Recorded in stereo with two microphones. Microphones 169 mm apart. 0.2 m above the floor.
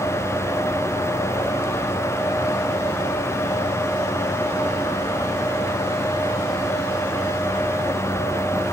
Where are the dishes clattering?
I don't hear dishes clattering.